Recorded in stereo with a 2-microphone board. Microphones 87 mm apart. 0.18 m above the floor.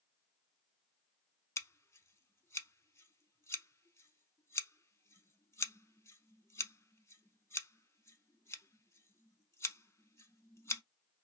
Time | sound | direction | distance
1.6 | scissors | 35° left (ahead or behind) | 0.7 m